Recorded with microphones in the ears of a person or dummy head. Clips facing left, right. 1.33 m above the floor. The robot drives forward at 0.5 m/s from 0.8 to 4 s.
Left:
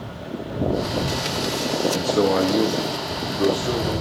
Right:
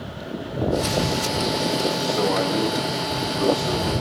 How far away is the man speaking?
About 0.8 m.